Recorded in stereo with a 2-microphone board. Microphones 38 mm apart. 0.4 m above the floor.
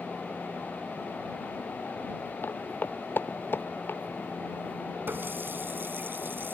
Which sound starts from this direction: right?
A running tap, at 5.1 s.